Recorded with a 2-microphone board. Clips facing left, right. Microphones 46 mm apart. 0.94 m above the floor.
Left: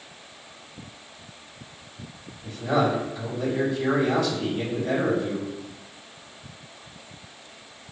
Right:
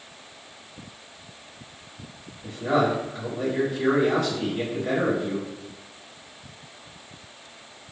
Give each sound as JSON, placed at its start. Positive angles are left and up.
{"t": 2.4, "sound": "a man speaking", "side_deg": -75, "distance_m": 1.9}